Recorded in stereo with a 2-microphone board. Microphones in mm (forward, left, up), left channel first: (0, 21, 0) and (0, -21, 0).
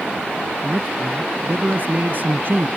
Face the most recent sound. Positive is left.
turn(degrees=-50)  # may be behind; listen again after turning